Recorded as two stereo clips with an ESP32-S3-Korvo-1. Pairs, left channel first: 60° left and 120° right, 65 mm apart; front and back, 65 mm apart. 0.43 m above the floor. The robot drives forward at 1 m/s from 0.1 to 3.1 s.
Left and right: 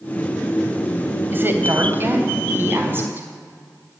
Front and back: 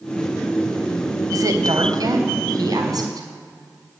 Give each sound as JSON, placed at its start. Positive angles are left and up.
{"t": 1.3, "sound": "a woman speaking", "azimuth_deg": -175, "distance_m": 2.5}